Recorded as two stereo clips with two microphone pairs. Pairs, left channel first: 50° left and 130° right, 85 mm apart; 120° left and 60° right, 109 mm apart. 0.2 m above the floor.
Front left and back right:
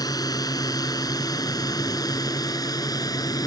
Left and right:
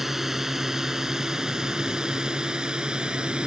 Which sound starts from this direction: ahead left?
A drone, at 0.0 s.